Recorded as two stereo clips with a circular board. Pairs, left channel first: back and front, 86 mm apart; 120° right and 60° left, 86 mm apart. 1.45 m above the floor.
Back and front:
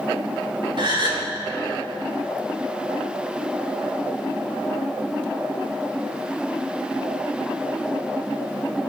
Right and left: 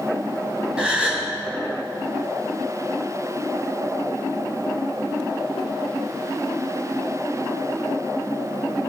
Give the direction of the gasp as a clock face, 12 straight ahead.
1 o'clock.